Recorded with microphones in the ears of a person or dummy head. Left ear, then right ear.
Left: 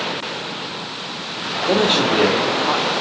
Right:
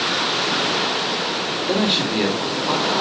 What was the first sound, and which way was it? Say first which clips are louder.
A man speaking: left 5 dB; 20° left (ahead or behind).